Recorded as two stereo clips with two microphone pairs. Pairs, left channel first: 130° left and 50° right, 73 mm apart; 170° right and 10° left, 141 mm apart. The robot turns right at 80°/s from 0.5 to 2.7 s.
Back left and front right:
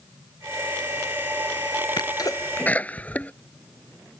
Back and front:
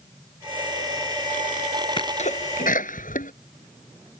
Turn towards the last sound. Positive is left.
turn(degrees=-160)